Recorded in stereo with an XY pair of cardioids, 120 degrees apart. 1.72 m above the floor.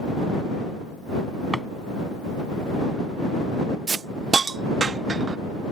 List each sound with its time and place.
1.5 s a drawer: 5° right
3.9 s a hiss: 30° right